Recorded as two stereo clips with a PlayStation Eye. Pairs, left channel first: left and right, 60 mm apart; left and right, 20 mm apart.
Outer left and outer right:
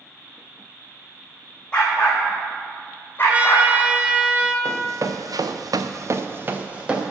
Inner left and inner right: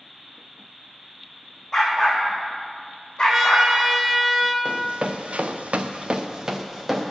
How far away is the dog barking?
About 3.5 m.